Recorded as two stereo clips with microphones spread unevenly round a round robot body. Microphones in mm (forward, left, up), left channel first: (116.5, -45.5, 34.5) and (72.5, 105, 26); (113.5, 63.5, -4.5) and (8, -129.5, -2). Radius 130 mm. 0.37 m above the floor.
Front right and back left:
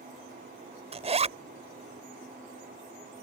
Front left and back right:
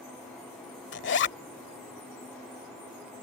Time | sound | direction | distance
0.9 | a zipper | 75° left | ?